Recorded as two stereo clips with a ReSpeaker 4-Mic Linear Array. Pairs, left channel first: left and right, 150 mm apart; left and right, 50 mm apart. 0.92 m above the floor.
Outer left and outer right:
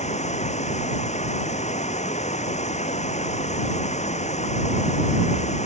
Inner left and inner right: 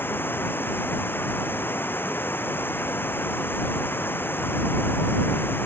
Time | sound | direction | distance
0.0 | running water | 50° left (ahead or behind) | ?